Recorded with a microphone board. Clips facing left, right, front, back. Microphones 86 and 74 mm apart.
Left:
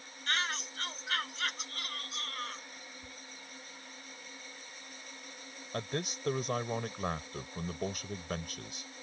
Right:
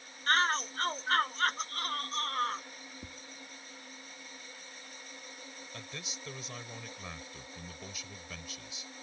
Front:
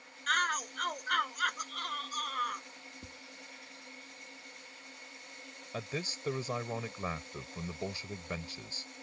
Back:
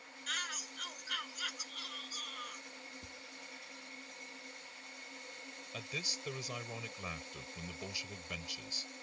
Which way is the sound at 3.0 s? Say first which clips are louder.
Right 2 dB, front 2 dB; 65° right.